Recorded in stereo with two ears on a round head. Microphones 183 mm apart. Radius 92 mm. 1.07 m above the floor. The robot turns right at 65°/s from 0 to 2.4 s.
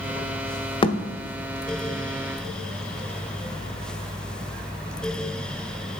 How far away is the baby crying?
I don't hear a baby crying.